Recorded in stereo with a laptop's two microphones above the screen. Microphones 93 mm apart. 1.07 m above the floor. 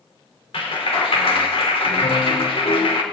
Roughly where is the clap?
Left.